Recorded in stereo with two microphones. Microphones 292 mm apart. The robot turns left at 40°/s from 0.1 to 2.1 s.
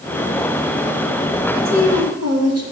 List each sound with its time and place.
1.6 s a woman speaking: 65° right (ahead or behind), 1.6 m; by 2.6 s 55° right (ahead or behind), 1.6 m